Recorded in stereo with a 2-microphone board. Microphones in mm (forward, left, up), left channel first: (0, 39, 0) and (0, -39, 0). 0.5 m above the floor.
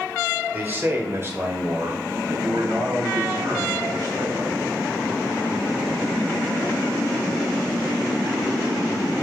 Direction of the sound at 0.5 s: 25° right (ahead or behind).